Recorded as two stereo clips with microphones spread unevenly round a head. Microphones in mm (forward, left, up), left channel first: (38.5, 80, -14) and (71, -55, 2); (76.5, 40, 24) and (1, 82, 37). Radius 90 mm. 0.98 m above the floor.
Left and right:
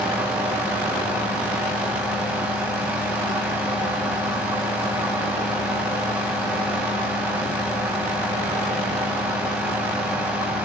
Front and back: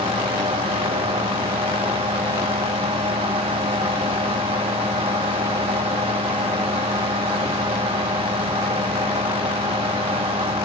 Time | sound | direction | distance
0.0 | a fan | 160° right | 1.8 m